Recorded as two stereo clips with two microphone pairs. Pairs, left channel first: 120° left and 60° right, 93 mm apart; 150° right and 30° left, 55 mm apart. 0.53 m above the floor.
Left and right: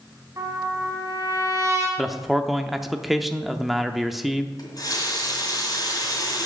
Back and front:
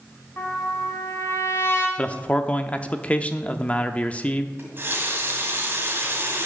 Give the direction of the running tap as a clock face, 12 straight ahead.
10 o'clock.